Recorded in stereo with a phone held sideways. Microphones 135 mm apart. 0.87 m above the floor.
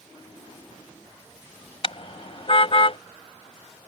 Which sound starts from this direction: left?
A car horn, at 1.8 s.